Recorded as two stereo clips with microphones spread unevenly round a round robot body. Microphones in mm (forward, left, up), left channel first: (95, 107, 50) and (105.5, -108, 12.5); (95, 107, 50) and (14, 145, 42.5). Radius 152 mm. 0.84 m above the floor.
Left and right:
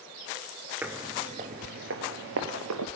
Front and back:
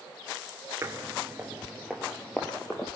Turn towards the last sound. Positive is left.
turn(degrees=-100)